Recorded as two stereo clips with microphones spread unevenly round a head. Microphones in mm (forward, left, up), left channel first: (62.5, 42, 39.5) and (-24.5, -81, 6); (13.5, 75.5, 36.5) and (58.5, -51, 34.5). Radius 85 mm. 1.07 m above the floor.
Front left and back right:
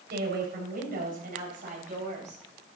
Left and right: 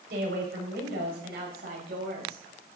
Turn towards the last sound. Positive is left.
turn(degrees=-80)